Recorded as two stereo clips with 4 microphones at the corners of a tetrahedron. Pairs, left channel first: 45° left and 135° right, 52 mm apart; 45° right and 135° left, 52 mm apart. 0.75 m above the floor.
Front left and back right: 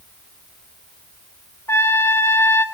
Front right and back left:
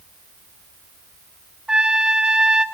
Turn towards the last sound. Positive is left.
turn(degrees=55)